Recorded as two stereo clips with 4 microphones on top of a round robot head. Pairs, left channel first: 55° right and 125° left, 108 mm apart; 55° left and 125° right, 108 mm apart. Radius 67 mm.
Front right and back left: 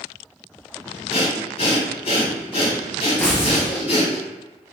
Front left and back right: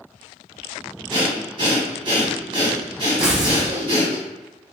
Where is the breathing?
90° right, 1.5 m.